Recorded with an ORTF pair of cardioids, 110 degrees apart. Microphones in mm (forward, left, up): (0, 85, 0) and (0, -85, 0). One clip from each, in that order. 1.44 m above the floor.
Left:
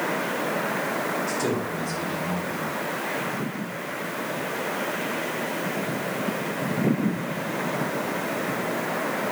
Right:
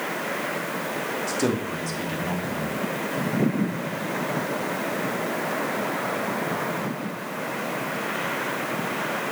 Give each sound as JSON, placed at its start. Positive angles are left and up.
{"t": 1.3, "sound": "a man speaking", "azimuth_deg": -45, "distance_m": 3.0}